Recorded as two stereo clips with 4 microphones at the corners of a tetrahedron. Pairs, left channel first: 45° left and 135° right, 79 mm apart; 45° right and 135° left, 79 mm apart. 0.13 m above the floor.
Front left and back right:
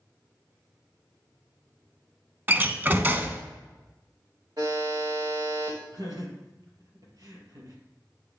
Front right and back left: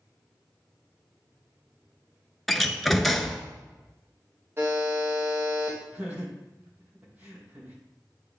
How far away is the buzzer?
About 3.5 m.